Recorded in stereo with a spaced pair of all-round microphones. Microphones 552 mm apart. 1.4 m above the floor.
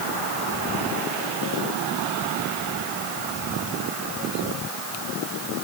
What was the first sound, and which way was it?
Only background noise.